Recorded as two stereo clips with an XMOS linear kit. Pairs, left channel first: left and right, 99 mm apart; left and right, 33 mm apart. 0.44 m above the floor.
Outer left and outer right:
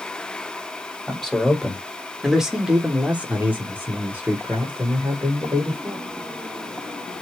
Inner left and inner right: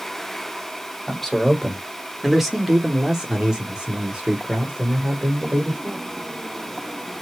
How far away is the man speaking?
About 1.5 m.